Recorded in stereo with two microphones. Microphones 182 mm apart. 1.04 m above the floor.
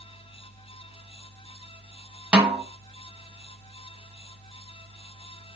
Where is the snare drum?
5° right (ahead or behind), 1.0 m.